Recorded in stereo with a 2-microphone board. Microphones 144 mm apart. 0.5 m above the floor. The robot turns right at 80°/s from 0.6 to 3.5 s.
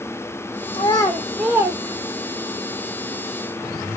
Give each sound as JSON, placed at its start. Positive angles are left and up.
{"t": 0.7, "sound": "a child speaking", "side_deg": 35, "distance_m": 0.9}